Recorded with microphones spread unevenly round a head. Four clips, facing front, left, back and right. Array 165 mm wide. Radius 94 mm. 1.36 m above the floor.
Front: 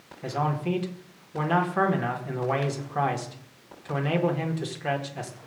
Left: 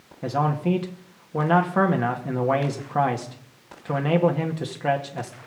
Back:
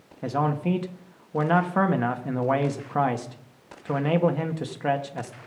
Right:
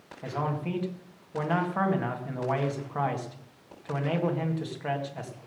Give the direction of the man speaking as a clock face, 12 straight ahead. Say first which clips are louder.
Left 8 dB, back 3 dB; 8 o'clock.